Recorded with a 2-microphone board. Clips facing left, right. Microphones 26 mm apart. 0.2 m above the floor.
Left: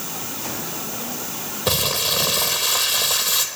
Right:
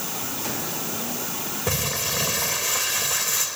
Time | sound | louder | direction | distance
1.7 | crumpling | left 6 dB | 75° left (ahead or behind) | 1.2 m